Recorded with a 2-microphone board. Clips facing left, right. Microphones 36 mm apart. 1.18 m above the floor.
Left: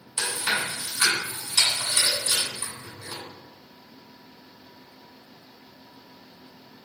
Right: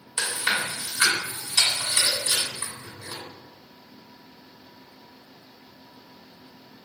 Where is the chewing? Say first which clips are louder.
Right 1 dB; 20° right (ahead or behind), 1.9 m.